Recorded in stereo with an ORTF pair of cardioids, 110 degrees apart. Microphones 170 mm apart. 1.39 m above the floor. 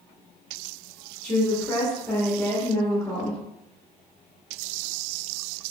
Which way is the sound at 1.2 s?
5° left.